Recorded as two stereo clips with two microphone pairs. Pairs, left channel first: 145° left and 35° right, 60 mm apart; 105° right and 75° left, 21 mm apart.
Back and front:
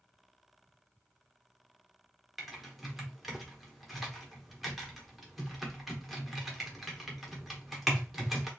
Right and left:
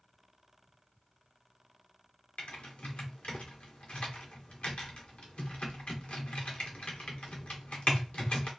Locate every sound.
2.4 s typing on a keyboard: 120° right, 0.8 m